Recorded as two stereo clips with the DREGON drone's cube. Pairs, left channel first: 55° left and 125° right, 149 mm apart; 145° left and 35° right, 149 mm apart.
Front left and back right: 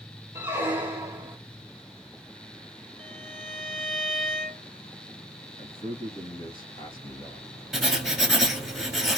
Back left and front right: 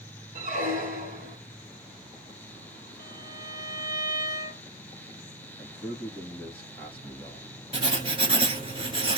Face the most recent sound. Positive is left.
turn(degrees=-35)